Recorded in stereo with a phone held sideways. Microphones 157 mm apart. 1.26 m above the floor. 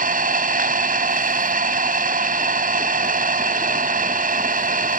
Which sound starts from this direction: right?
An engine running, at 0.0 s.